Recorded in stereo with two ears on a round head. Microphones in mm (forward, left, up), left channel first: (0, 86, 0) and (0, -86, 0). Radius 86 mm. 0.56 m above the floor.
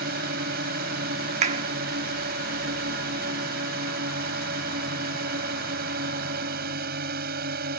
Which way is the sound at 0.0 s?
55° right (ahead or behind).